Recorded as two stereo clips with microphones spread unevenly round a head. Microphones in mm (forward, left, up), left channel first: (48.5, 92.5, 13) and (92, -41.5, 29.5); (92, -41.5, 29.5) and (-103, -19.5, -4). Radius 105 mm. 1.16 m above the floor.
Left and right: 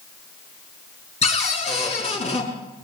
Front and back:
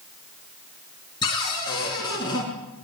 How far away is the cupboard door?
About 5 m.